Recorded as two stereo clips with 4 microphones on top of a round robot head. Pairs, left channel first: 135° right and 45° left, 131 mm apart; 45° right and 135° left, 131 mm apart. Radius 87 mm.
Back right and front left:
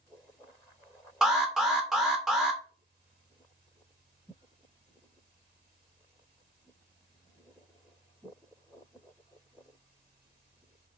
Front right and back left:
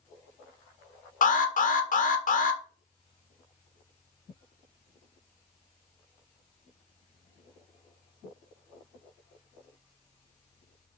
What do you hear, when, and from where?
1.2 s an alarm: 40° right, 1.8 m